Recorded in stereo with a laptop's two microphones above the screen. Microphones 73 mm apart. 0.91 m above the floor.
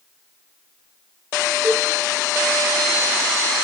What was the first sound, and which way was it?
A cowbell, centre (ahead or behind).